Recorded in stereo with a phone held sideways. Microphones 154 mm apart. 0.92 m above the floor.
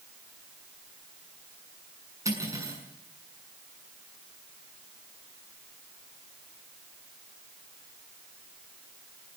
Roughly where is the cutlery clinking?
Centre.